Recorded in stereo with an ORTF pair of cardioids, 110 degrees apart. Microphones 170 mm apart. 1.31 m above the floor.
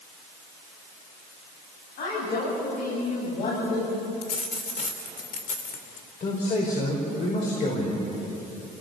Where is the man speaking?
50° left, 5 m.